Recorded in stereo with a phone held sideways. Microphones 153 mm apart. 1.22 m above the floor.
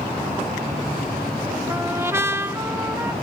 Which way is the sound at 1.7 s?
15° right (ahead or behind).